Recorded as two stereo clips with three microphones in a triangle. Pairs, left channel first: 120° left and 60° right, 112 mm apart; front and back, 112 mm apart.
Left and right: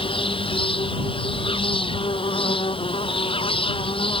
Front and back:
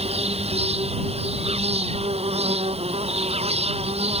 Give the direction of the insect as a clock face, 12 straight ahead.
7 o'clock.